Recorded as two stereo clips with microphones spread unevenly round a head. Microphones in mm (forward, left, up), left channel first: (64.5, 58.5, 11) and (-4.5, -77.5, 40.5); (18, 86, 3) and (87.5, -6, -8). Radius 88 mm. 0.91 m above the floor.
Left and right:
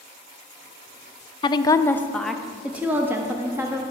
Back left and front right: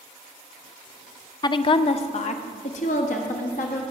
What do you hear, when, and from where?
1.4 s a woman speaking: 85° left, 0.6 m; by 3.8 s 165° left, 1.4 m